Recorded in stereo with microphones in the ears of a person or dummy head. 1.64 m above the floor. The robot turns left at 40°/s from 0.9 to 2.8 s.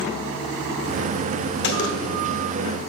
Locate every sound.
1.6 s a gunshot: 60° left (ahead or behind), 1.1 m; by 2.2 s 80° left, 1.1 m